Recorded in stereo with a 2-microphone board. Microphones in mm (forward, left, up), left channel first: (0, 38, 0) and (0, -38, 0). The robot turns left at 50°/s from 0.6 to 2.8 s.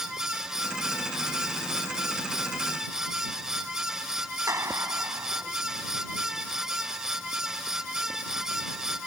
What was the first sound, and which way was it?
A clap, 40° right (ahead or behind).